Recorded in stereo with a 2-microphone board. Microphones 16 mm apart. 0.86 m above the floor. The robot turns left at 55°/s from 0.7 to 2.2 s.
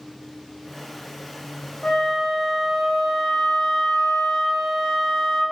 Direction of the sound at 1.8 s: 20° left (ahead or behind).